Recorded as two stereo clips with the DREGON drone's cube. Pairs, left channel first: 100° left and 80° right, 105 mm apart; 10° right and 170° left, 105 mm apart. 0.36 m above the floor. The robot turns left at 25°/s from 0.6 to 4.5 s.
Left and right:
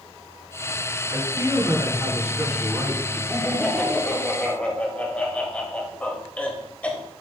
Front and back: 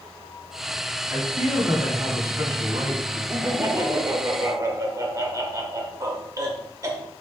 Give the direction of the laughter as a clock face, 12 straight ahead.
5 o'clock.